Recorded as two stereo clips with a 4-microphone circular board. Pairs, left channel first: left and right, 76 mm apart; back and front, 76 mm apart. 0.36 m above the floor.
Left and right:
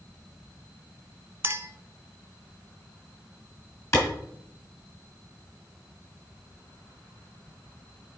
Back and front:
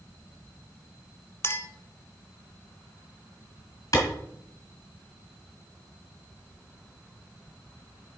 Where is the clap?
135° left, 3 m.